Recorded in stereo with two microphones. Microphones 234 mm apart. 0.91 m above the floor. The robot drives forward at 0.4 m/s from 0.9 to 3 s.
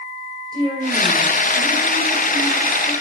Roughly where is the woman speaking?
Centre.